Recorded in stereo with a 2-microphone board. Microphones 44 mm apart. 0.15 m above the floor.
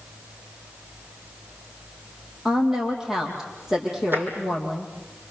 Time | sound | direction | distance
2.5 | a woman speaking | 10° right (ahead or behind) | 6.5 m
4.1 | tapping | 50° right (ahead or behind) | 4.5 m